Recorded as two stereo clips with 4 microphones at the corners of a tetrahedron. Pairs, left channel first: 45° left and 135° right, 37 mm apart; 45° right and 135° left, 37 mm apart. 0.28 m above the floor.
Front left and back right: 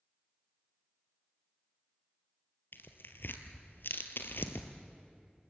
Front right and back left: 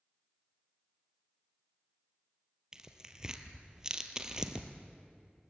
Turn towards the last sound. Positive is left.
turn(degrees=60)